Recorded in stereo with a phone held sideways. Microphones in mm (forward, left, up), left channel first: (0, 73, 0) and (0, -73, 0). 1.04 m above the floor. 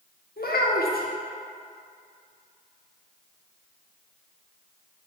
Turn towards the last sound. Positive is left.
turn(degrees=80)